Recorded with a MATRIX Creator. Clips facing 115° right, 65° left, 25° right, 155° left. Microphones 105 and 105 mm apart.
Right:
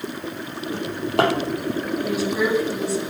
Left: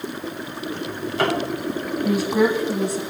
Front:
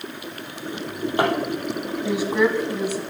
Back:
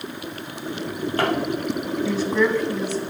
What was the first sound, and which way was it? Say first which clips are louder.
A drawer: right 4 dB, front 2 dB; 95° right.